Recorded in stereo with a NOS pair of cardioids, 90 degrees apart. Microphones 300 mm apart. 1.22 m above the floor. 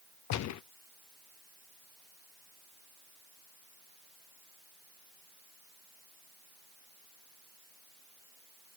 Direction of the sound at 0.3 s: 65° left.